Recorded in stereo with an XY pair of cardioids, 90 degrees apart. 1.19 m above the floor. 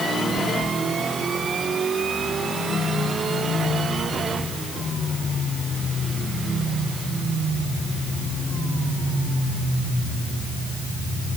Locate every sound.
Only background noise.